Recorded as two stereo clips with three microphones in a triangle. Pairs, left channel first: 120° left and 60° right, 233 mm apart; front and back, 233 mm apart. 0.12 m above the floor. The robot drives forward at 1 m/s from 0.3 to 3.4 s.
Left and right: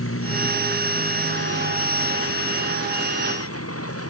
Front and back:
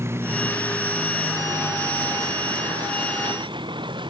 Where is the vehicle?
100° left; by 4.1 s 110° left.